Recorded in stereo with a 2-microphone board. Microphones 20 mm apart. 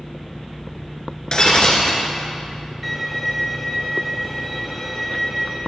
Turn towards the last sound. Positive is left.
turn(degrees=5)  # may be behind; listen again after turning